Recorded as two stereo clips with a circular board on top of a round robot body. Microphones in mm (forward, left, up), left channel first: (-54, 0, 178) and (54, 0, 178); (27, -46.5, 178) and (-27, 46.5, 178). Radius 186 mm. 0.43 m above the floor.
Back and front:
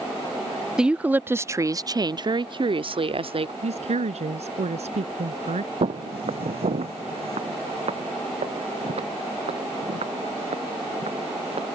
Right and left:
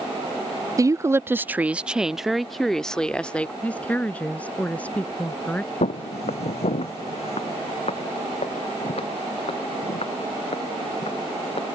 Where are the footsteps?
35° right; by 11.8 s 25° right.